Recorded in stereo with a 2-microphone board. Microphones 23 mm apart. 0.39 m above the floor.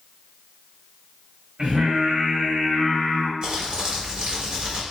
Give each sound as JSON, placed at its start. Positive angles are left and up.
{"t": 1.6, "sound": "singing", "side_deg": -60, "distance_m": 1.6}
{"t": 3.4, "sound": "crumpling", "side_deg": -35, "distance_m": 1.4}